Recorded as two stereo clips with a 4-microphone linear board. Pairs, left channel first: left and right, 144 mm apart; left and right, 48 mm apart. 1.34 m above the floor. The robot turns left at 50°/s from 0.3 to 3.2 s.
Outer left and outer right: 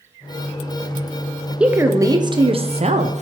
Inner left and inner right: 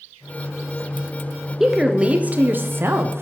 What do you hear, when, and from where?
1.6 s a woman speaking: 10° right, 0.6 m; by 3.2 s 90° right, 0.6 m